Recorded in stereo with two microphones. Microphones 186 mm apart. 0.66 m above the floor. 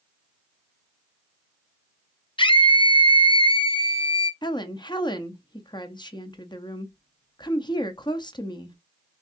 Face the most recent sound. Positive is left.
turn(degrees=25)  # may be behind; listen again after turning